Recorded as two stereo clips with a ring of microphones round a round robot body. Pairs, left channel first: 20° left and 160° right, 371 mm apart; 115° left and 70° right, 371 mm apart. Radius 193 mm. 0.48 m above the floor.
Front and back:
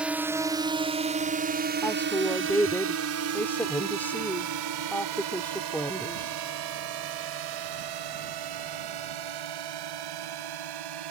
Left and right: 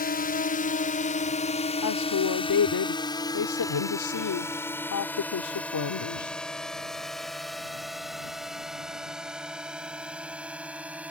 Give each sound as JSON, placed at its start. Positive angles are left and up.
{"t": 0.0, "sound": "a drone", "azimuth_deg": 120}
{"t": 1.8, "sound": "a woman speaking", "azimuth_deg": 105}